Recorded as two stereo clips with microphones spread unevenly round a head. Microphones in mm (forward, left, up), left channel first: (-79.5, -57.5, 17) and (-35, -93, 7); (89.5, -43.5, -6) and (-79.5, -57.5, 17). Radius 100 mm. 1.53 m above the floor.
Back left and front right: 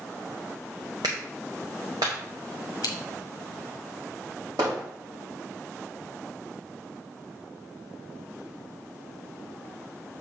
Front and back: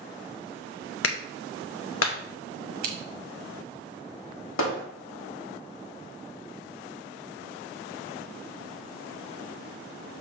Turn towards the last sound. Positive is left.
turn(degrees=20)